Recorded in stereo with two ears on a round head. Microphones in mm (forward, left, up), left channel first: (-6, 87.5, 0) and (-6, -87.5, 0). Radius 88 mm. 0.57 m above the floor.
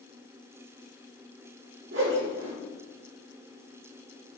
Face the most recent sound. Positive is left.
turn(degrees=-65)  # may be behind; listen again after turning